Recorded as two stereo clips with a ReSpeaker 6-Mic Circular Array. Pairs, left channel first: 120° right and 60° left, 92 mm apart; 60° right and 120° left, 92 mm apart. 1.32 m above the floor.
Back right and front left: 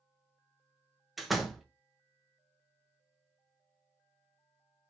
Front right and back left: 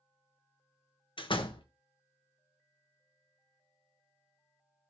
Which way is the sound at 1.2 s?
30° right.